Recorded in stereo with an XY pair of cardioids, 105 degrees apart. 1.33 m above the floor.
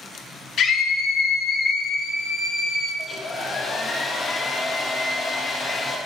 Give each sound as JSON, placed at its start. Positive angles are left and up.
{"t": 0.6, "sound": "a scream", "azimuth_deg": 55, "distance_m": 1.6}
{"t": 3.0, "sound": "a hair dryer", "azimuth_deg": 25, "distance_m": 2.0}